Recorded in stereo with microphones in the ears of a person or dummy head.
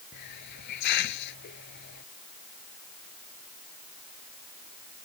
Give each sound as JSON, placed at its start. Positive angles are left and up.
{"t": 0.1, "sound": "a hiss", "side_deg": 60}